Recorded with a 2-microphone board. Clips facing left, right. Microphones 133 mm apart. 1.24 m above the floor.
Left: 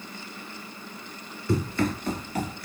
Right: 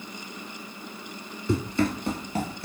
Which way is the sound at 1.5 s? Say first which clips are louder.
Right 1 dB; 25° right (ahead or behind).